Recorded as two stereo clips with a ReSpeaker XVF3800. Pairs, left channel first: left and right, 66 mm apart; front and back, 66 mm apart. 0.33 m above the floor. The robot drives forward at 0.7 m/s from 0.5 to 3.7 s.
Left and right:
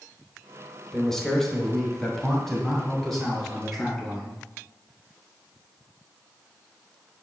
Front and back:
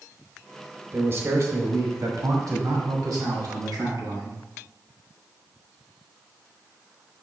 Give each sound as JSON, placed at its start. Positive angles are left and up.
{"t": 0.9, "sound": "a man speaking", "azimuth_deg": 170, "distance_m": 1.0}